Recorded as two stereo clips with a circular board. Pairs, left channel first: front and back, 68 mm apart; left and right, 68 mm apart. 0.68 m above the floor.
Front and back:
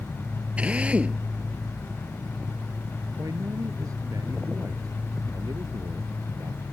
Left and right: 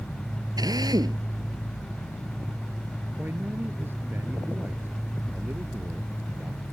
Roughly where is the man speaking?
Behind right.